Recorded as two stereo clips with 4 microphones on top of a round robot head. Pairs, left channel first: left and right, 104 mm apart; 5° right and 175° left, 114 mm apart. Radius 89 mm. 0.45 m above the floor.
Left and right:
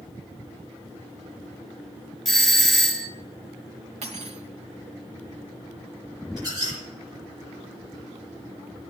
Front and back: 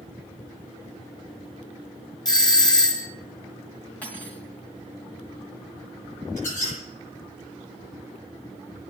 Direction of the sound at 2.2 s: 5° left.